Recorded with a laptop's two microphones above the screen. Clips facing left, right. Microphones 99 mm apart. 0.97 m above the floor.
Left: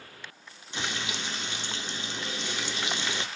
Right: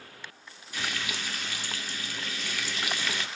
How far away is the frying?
About 0.6 m.